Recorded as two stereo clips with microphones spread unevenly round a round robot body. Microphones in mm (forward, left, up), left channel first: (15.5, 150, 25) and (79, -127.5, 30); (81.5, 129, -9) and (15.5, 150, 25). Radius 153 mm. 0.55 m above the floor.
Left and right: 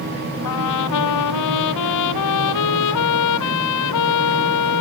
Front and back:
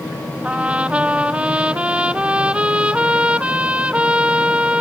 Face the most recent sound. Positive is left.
turn(degrees=90)